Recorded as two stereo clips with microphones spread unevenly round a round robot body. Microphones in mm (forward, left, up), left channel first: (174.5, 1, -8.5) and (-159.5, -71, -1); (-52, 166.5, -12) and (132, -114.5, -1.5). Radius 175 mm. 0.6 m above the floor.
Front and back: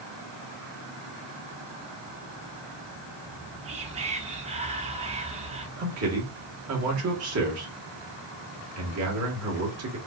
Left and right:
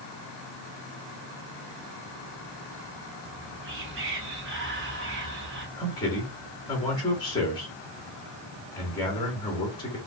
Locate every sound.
3.2 s whispering: 100° right, 0.9 m
5.8 s a man speaking: 165° right, 1.5 m